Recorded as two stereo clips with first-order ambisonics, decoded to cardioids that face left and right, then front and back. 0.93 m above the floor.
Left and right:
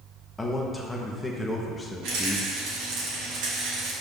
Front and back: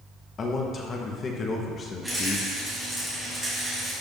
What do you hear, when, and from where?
0.4 s a man speaking: 15° left, 0.7 m
2.0 s a rattle: 95° right, 2.5 m